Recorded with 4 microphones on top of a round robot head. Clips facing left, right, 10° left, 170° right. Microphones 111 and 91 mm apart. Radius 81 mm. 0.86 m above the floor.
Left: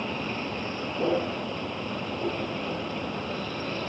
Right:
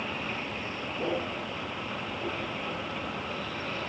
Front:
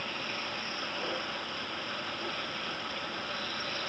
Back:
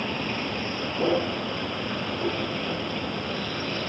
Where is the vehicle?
155° left.